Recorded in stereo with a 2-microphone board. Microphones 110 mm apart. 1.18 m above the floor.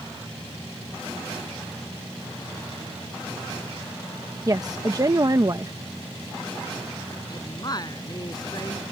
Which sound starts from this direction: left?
A woman speaking, at 7.3 s.